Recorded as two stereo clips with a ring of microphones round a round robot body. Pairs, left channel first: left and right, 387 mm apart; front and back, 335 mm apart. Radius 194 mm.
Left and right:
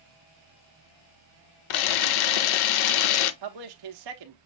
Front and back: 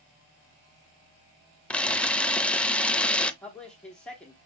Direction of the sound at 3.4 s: 90° right.